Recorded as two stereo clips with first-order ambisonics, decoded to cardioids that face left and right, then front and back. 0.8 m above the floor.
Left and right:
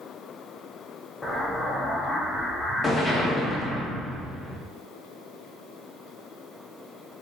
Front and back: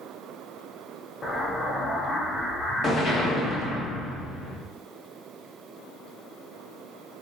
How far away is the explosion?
About 0.6 m.